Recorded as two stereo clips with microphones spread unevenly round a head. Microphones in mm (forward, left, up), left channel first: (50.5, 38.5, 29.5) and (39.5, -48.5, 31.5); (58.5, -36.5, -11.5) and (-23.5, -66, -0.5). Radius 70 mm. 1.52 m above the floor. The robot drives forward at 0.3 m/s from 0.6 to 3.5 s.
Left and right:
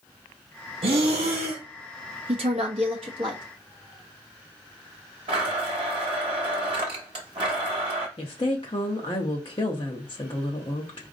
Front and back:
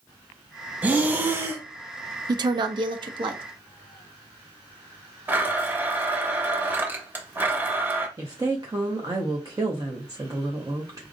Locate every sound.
0.8 s breathing: 90° right, 1.1 m; by 1.6 s 105° right, 1.1 m
2.3 s a woman speaking: 135° right, 0.6 m; by 3.4 s 150° right, 0.8 m
5.3 s a blender: 105° right, 1.1 m
8.2 s a woman speaking: 135° left, 0.6 m